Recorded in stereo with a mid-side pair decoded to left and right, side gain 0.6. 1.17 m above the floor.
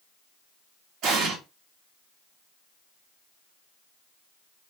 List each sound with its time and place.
1.0 s an explosion: 65° right, 1.1 m